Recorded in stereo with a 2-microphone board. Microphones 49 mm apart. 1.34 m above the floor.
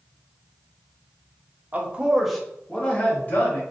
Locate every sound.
1.7 s a man speaking: 35° right (ahead or behind), 0.7 m; by 3.6 s 40° left (ahead or behind), 1.2 m